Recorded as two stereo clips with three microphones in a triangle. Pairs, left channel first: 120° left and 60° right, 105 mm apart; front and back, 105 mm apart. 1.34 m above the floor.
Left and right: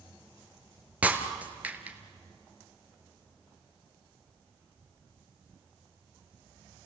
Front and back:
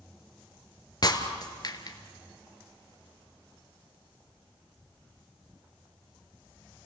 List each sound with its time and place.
1.0 s breaking glass: 10° left, 1.7 m